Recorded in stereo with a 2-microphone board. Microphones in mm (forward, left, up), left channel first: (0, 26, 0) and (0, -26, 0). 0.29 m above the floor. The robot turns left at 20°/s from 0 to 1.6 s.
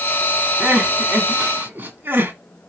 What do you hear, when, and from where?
0.6 s crying: 20° right (ahead or behind), 1.7 m; by 2.3 s 35° right (ahead or behind), 1.7 m